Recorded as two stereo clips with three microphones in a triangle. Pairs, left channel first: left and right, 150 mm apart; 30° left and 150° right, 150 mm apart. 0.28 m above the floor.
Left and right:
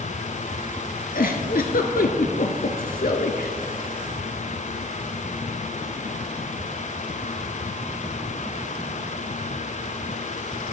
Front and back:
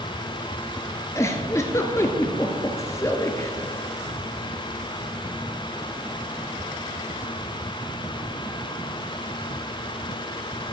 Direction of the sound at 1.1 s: 100° left.